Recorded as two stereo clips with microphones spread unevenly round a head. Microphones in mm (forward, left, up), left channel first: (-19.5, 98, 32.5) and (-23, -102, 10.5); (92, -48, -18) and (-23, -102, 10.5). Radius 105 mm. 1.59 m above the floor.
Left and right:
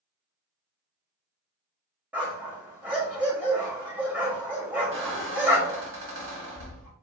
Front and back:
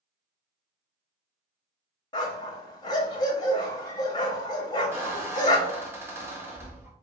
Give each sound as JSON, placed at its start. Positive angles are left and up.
{"t": 2.1, "sound": "a dog barking", "azimuth_deg": -5, "distance_m": 1.0}
{"t": 4.9, "sound": "a squeak", "azimuth_deg": -100, "distance_m": 1.2}